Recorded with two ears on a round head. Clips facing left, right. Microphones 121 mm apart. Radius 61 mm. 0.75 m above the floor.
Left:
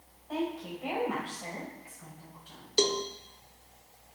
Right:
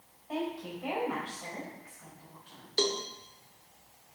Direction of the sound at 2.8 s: 20° left (ahead or behind).